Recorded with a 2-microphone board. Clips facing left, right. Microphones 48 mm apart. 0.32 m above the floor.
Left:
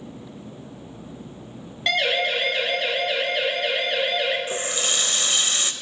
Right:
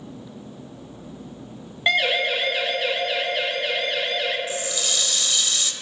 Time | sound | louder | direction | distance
1.9 | a siren | right 1 dB | 20° right (ahead or behind) | 3 m
4.5 | a running tap | left 1 dB | 35° left (ahead or behind) | 0.7 m